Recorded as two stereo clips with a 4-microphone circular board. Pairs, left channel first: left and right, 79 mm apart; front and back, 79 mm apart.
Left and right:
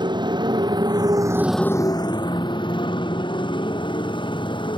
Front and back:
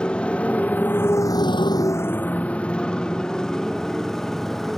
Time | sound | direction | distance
0.0 | a motorcycle | 75° right | ?